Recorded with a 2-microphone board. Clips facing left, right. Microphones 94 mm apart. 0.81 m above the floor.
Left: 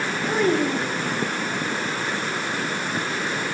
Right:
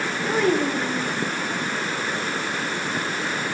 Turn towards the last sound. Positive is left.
turn(degrees=0)  # may be behind; listen again after turning